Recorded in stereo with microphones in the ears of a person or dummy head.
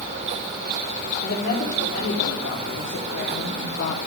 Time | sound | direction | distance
1.2 | a woman speaking | 50° left (ahead or behind) | 4 m